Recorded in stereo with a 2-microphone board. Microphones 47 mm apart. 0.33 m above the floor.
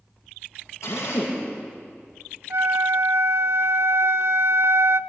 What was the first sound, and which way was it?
A drill, 85° left.